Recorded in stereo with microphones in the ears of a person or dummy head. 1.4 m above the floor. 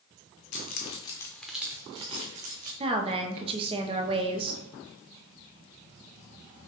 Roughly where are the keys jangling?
Left.